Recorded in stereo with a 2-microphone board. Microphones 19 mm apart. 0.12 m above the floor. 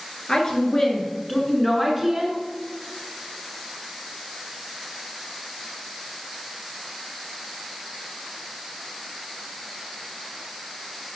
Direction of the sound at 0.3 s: 35° left (ahead or behind).